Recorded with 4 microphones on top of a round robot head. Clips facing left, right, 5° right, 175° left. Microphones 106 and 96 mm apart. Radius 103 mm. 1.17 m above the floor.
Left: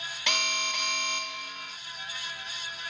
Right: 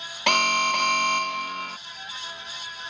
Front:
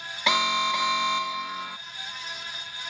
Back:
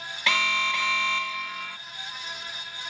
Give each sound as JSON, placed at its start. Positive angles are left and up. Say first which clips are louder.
{"t": 0.3, "sound": "an alarm", "louder": "right 11 dB, front 3 dB", "azimuth_deg": -75}